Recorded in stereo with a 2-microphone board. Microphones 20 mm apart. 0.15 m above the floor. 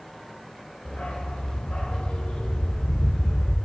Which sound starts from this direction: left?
A dog barking, at 0.8 s.